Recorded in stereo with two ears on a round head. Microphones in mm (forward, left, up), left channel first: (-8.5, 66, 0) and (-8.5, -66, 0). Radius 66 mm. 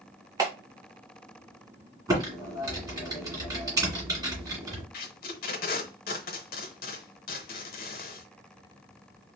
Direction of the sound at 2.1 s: 25° right (ahead or behind).